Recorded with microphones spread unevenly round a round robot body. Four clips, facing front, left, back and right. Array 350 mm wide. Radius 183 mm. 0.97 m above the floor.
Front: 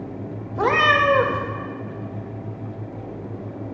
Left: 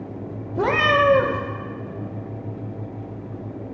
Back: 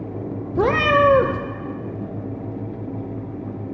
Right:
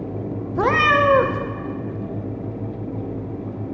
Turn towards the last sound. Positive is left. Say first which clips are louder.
# right 1 dB, back 2 dB
turn(degrees=-170)